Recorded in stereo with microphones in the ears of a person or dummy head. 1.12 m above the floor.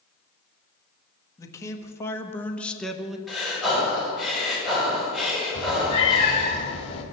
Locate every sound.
1.4 s a man speaking: 20° left (ahead or behind), 1.5 m; by 3.2 s 5° right (ahead or behind), 0.8 m
3.3 s breathing: 5° right (ahead or behind), 5.5 m
5.5 s a cat meowing: 35° left (ahead or behind), 1.9 m